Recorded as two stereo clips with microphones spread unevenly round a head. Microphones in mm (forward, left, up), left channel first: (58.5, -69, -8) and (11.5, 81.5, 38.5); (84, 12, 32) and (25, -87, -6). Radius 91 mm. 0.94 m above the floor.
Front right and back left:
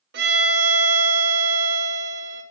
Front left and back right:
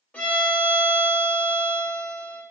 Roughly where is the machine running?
I don't hear a machine running.